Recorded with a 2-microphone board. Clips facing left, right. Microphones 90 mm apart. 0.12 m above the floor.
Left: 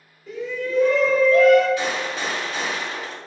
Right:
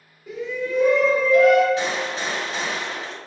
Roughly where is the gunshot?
Right.